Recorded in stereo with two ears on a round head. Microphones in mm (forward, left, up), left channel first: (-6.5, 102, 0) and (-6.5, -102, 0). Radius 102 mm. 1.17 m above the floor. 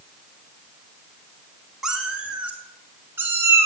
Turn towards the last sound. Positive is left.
turn(degrees=-10)  # may be behind; listen again after turning